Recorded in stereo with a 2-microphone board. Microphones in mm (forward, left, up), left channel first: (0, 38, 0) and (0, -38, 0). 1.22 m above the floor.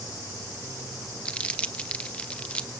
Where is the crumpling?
15° left (ahead or behind), 0.9 m.